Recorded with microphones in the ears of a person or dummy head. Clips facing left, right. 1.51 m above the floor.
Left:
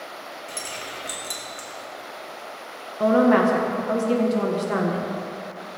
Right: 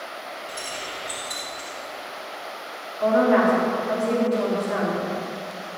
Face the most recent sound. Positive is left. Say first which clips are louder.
# left 1 dB
turn(degrees=55)  # may be behind; listen again after turning